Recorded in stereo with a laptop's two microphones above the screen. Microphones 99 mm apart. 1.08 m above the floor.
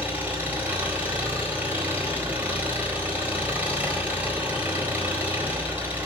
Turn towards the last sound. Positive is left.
turn(degrees=-20)  # may be behind; listen again after turning